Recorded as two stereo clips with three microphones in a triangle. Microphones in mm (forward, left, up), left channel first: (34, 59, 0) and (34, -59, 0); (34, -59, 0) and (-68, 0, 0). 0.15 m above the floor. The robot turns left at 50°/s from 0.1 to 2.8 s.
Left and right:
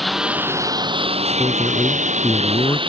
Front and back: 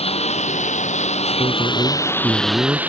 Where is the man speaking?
150° left; by 2.8 s 80° left.